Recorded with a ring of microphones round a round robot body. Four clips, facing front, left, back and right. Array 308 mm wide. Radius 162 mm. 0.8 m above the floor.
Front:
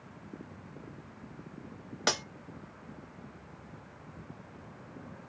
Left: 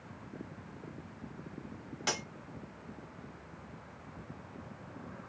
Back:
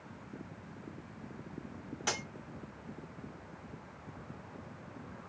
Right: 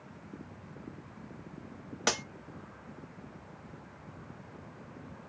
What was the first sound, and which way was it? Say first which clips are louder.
Cutlery clinking: right 4 dB, front 6 dB; 40° right.